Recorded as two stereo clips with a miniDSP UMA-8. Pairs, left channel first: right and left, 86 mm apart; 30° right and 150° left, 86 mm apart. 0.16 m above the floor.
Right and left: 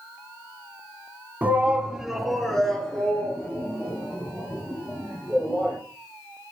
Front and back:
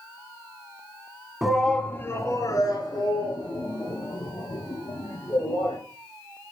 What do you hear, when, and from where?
1.4 s a shout: 75° left, 1.2 m; by 5.8 s 15° right, 5 m